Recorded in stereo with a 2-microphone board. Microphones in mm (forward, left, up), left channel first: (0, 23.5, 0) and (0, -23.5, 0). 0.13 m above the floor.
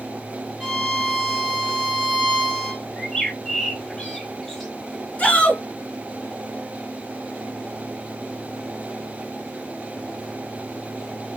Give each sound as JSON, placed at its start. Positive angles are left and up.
{"t": 0.6, "sound": "a violin", "side_deg": -10, "distance_m": 1.8}
{"t": 3.0, "sound": "a bird", "side_deg": 15, "distance_m": 1.1}
{"t": 5.2, "sound": "a shout", "side_deg": 25, "distance_m": 1.6}